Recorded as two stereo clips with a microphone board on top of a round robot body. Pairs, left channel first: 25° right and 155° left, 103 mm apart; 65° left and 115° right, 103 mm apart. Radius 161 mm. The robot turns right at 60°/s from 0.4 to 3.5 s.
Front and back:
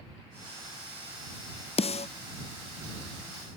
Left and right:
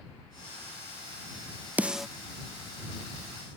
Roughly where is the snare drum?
Ahead right.